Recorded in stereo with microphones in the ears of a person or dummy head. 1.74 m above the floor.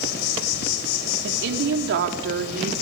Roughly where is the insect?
Left.